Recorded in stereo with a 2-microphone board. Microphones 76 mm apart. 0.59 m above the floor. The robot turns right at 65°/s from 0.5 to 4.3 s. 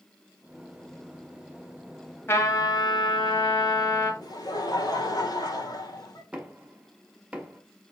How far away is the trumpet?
About 2 m.